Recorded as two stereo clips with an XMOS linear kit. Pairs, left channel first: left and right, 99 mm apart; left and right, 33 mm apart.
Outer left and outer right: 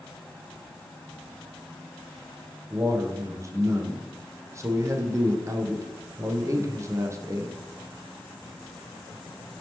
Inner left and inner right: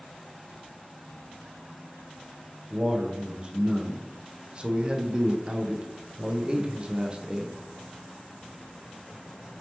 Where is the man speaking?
30° right (ahead or behind), 0.5 m.